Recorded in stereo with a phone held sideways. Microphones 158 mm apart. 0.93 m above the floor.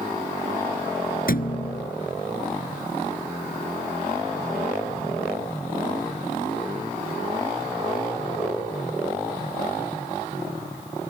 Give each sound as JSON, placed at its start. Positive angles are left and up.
{"t": 1.3, "sound": "a thud", "side_deg": 65}